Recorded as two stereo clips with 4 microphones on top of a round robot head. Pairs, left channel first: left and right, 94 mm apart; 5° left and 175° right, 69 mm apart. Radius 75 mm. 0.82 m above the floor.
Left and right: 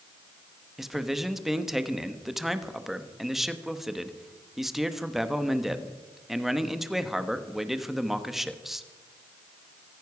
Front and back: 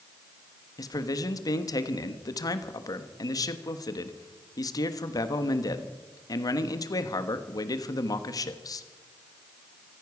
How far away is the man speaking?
About 1.2 m.